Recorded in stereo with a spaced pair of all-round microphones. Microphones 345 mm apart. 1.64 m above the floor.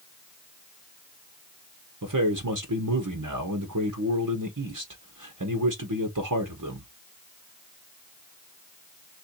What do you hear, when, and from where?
2.0 s a man speaking: 60° right (ahead or behind), 1.0 m